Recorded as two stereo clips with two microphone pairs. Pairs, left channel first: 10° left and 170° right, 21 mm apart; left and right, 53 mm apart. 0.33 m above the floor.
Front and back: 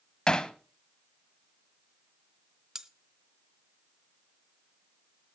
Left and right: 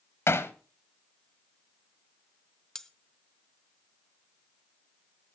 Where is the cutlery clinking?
155° left, 0.8 m.